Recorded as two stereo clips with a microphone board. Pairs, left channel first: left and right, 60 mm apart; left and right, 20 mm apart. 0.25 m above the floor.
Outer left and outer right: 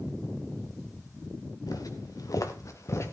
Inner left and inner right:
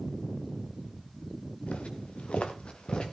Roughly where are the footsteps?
Left.